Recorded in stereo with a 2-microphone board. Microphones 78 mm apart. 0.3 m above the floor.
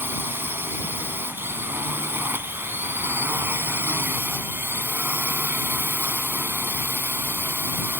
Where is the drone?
25° right (ahead or behind).